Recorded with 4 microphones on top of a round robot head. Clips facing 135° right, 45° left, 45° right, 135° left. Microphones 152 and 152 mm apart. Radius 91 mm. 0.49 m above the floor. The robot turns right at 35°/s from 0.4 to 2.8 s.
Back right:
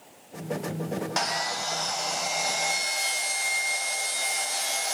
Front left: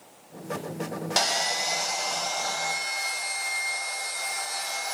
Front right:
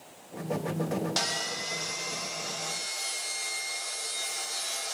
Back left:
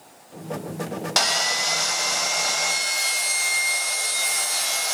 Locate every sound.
1.2 s sawing: 105° left, 0.8 m; by 5.0 s 160° left, 0.8 m